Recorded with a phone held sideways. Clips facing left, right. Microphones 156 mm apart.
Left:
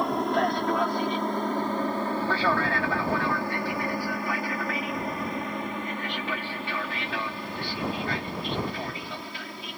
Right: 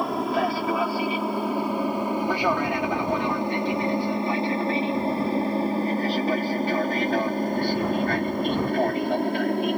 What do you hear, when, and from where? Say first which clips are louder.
0.0 s an aircraft: right 1 dB; centre (ahead or behind); by 9.8 s 55° right (ahead or behind)